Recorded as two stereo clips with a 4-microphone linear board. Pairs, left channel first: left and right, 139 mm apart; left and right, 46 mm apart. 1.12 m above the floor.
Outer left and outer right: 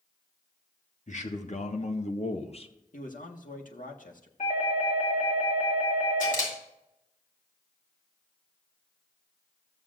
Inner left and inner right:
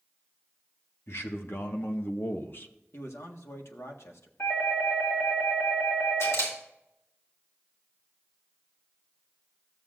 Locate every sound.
1.1 s a man speaking: 60° left (ahead or behind), 1.6 m; by 2.7 s 45° left (ahead or behind), 0.8 m
2.9 s a man speaking: 70° left (ahead or behind), 1.5 m
4.4 s a doorbell: 70° left (ahead or behind), 4 m
6.2 s a camera shutter: 75° left (ahead or behind), 3.5 m